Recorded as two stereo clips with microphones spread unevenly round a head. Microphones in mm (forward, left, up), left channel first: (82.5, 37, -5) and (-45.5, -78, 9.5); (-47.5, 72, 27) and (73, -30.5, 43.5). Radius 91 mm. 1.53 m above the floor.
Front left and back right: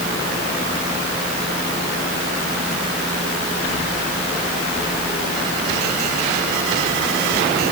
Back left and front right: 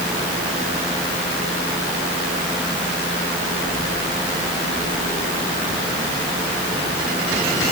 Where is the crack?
I don't hear a crack.